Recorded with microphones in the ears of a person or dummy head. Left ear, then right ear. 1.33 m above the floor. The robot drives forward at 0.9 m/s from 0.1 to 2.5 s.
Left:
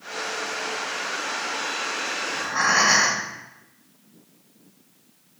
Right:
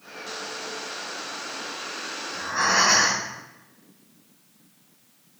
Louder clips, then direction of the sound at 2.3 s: Left 1 dB; 20° left (ahead or behind).